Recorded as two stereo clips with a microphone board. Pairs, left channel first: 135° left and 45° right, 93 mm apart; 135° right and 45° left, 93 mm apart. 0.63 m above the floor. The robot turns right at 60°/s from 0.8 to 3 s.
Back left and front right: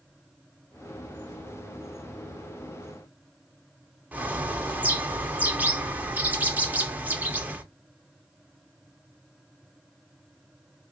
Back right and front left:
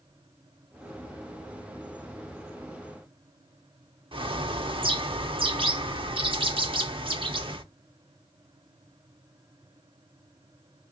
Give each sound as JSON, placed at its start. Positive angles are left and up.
{"t": 4.1, "sound": "a bird", "azimuth_deg": 25, "distance_m": 0.7}